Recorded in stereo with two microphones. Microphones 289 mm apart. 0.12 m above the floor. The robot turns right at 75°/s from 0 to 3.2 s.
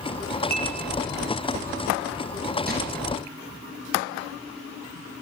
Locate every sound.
0.5 s dishes clattering: 30° left (ahead or behind), 3.5 m; by 0.8 s 10° left (ahead or behind), 3.5 m
2.7 s crumpling: 30° right (ahead or behind), 9 m; by 2.8 s 35° right (ahead or behind), 9 m